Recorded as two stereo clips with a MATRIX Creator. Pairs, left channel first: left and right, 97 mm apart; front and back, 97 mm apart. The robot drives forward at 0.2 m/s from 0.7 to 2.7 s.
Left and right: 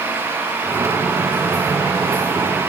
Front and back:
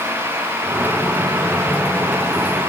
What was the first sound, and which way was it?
Only background noise.